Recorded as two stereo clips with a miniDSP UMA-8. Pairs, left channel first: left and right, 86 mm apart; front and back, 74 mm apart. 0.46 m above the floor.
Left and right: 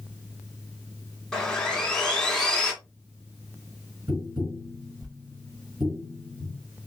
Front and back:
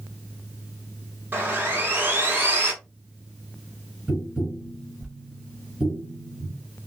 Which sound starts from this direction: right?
Tapping, at 4.1 s.